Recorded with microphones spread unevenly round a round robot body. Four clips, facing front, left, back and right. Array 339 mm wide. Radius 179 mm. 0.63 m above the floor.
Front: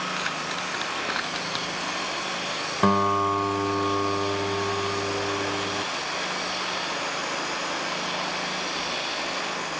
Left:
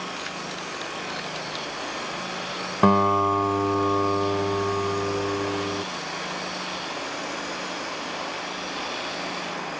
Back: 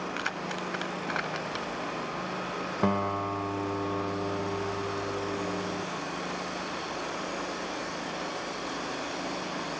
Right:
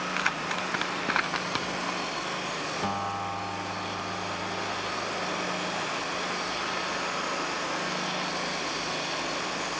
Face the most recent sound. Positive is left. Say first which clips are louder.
# left 15 dB, front 8 dB
turn(degrees=70)